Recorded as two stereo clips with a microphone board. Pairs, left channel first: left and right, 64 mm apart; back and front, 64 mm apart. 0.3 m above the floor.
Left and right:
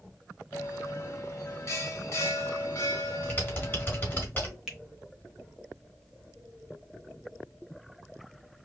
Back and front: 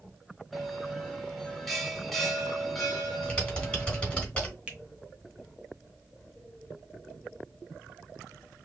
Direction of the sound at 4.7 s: 25° right.